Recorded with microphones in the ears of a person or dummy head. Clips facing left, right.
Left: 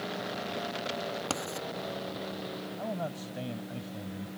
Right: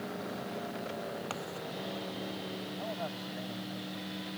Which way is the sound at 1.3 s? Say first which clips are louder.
Left 4 dB; 50° left (ahead or behind).